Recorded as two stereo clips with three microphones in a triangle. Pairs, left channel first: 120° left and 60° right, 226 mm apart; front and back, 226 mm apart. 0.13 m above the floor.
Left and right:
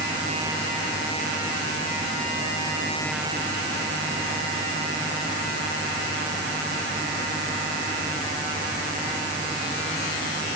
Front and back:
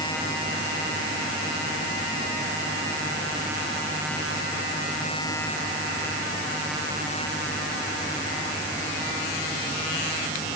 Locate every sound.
Only background noise.